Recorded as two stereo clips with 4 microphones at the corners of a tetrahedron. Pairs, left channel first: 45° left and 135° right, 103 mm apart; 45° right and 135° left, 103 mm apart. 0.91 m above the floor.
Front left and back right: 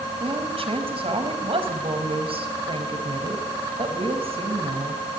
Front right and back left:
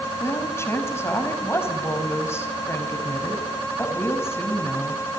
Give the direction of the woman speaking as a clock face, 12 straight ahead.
4 o'clock.